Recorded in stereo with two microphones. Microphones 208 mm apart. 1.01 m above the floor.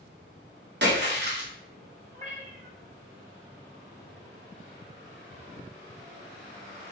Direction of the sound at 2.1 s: 35° right (ahead or behind).